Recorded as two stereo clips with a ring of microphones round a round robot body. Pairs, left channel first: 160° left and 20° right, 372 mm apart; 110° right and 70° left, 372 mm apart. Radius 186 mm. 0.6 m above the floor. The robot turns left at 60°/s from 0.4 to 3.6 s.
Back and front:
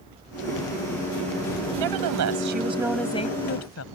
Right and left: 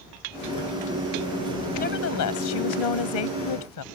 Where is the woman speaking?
40° right; by 3.9 s 150° right.